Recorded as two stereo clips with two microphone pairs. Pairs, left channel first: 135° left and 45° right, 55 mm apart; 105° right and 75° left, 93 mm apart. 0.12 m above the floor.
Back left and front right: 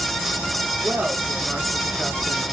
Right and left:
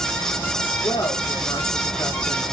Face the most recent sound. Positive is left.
turn(degrees=-175)